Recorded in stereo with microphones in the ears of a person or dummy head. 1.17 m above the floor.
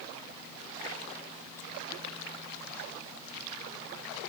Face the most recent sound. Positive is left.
No sound to turn to.